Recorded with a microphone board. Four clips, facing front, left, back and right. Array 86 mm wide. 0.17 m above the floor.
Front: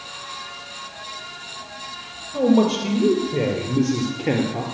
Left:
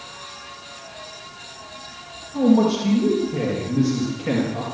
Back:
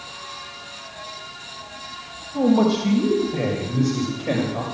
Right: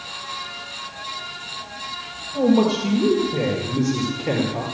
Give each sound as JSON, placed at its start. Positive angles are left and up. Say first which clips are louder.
{"t": 2.3, "sound": "a man speaking", "louder": "left 1 dB, front 1 dB", "azimuth_deg": -5, "distance_m": 4.5}